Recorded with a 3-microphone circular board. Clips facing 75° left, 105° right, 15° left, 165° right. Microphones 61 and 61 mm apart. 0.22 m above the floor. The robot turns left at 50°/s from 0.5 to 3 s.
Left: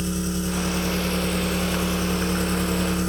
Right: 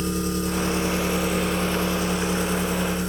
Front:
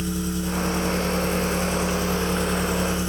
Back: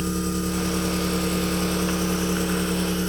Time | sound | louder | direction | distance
0.0 | an engine running | right 1 dB, back 1 dB | 150° right | 1.3 m